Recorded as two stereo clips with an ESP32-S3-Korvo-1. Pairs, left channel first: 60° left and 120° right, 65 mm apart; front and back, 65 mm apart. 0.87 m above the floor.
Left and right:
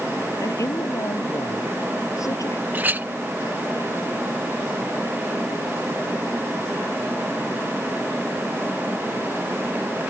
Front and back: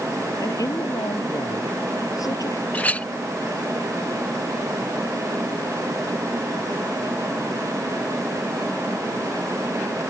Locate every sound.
0.4 s a woman speaking: 25° left
2.7 s a clink: 65° right